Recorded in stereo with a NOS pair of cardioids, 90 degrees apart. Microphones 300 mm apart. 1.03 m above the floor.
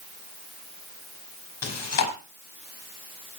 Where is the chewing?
55° left, 4.5 m.